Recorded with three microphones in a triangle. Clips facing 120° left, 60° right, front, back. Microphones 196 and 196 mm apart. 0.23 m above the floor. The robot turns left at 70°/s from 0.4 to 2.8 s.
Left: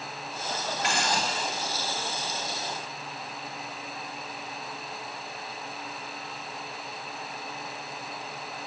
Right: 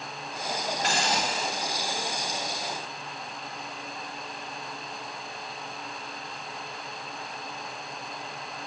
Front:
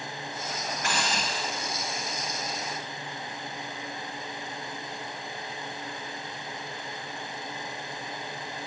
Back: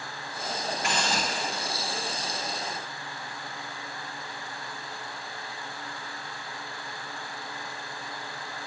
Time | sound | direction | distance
0.8 | a hiss | 110° right | 7 m